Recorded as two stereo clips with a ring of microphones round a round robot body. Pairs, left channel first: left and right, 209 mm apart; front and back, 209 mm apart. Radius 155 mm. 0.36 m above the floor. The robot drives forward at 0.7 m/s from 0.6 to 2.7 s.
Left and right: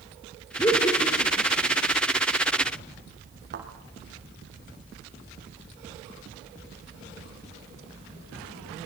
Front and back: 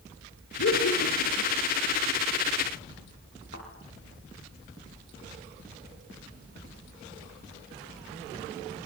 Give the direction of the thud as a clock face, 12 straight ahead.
2 o'clock.